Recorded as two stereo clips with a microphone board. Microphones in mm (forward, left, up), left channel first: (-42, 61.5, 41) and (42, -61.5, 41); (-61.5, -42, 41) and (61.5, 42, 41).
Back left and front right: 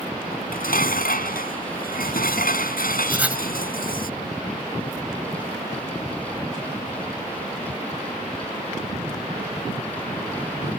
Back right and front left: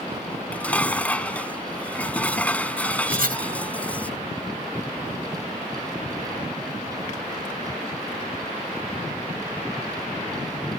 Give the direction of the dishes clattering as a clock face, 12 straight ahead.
8 o'clock.